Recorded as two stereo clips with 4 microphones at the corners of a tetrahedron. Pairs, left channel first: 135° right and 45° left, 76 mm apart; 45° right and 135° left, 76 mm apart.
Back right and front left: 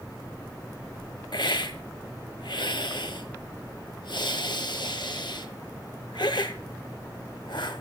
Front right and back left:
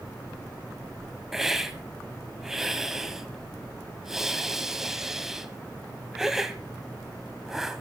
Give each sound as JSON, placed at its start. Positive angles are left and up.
{"t": 1.3, "sound": "a hiss", "azimuth_deg": -140, "distance_m": 1.5}